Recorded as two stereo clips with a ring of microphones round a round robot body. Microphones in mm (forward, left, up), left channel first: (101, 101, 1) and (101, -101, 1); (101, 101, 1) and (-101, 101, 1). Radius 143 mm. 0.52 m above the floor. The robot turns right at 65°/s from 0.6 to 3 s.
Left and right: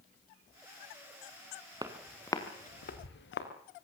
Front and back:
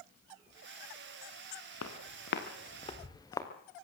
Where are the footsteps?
20° right, 3.5 m; by 3.5 s 75° left, 3.5 m.